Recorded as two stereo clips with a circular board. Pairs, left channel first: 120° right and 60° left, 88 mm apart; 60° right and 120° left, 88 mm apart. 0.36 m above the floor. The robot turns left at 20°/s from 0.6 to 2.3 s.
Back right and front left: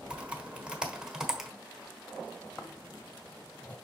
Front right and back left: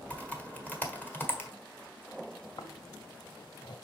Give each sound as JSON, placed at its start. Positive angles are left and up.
{"t": 0.1, "sound": "typing on a keyboard", "azimuth_deg": -5, "distance_m": 1.4}
{"t": 2.6, "sound": "snoring", "azimuth_deg": -55, "distance_m": 1.2}